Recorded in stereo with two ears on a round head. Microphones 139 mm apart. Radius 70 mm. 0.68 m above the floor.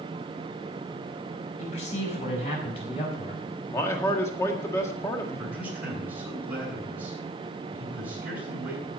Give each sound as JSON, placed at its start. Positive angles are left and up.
{"t": 1.6, "sound": "a man speaking", "side_deg": 45, "distance_m": 5.5}
{"t": 3.7, "sound": "a man speaking", "side_deg": 20, "distance_m": 1.6}
{"t": 5.4, "sound": "a man speaking", "side_deg": -10, "distance_m": 7.5}